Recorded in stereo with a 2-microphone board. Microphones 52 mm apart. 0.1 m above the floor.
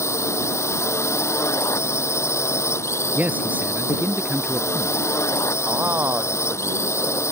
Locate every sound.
0.0 s a drone: 60° left (ahead or behind)
3.1 s a man speaking: 30° right (ahead or behind)
5.6 s a man speaking: 40° right (ahead or behind)